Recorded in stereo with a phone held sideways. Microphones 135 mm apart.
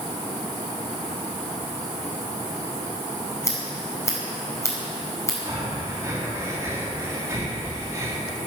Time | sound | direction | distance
3.4 | scissors | 20° left (ahead or behind) | 5.5 m
5.5 | breathing | 20° right (ahead or behind) | 3.5 m